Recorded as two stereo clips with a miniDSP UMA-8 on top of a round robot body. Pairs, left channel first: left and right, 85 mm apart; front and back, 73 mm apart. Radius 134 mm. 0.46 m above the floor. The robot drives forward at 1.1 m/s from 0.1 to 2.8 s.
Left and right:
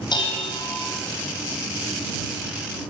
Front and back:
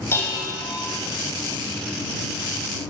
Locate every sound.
0.1 s dishes clattering: 60° left, 2 m; by 0.6 s 75° left, 1.9 m